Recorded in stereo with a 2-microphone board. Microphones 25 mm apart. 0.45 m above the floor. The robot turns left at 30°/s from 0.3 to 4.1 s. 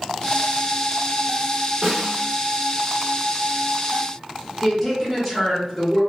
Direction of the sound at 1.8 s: 15° right (ahead or behind).